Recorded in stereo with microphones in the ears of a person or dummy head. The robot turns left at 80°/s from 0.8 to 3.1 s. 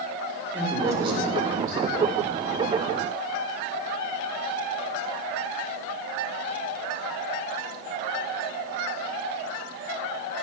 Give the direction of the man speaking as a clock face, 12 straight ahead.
12 o'clock.